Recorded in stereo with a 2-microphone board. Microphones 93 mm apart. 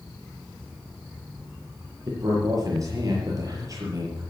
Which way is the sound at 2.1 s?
40° right (ahead or behind).